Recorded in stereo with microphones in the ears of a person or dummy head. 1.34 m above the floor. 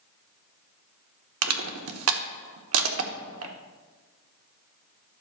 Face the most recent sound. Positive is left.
turn(degrees=-80)